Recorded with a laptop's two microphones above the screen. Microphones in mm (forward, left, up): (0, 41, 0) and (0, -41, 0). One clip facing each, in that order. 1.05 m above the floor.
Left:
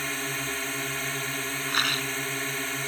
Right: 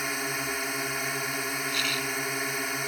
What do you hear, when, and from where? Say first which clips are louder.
0.0 s a drone: right 1 dB; 10° right (ahead or behind)
1.7 s a rattle: left 2 dB; 55° left (ahead or behind)